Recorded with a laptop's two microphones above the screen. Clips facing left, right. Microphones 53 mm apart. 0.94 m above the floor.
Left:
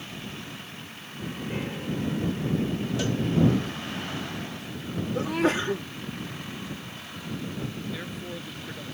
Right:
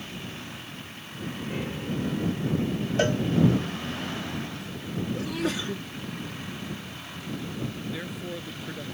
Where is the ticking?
No ticking in this recording.